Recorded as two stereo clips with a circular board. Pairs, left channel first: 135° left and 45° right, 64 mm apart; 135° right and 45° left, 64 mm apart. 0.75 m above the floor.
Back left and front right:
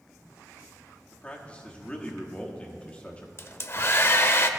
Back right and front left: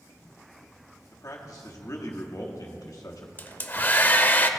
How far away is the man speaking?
About 1.3 m.